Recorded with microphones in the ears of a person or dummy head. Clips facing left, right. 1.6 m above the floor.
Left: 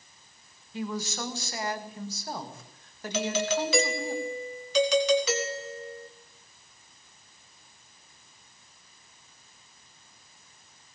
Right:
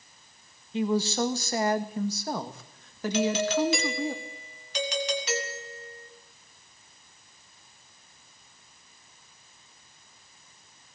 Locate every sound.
0.7 s a woman speaking: 20° right (ahead or behind), 1.8 m; by 4.1 s 75° right (ahead or behind), 3.5 m
3.1 s a doorbell: 65° left (ahead or behind), 2.5 m